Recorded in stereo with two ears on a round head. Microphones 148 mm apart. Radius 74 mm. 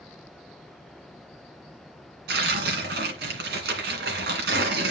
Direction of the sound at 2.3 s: 70° right (ahead or behind).